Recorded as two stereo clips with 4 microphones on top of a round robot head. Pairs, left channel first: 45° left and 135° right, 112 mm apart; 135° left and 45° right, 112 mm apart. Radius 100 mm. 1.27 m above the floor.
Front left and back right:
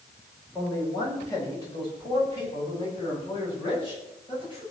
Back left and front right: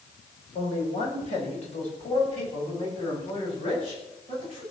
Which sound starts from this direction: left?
A man speaking, at 0.6 s.